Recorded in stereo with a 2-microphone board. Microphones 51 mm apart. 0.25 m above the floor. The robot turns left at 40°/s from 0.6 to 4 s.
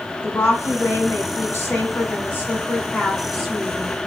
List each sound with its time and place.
0.2 s a woman speaking: 120° left, 2.0 m; by 3.9 s 15° right, 2.0 m